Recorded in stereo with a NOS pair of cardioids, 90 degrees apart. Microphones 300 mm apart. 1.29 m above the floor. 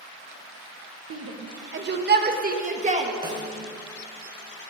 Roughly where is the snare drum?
Ahead.